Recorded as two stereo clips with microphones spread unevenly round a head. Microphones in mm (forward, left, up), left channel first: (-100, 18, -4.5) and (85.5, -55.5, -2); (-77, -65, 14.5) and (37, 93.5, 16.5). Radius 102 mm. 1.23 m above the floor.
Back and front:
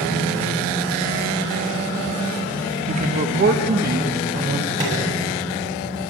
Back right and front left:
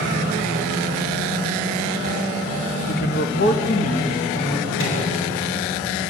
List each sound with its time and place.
2.9 s a man speaking: 80° right, 0.9 m; by 4.7 s 65° right, 2.5 m
4.8 s a microwave: 90° right, 9 m